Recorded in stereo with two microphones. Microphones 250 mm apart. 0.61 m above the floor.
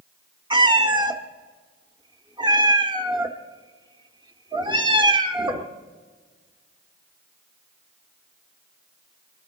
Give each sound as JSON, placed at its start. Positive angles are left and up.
{"t": 0.5, "sound": "a cat meowing", "side_deg": -20, "distance_m": 0.7}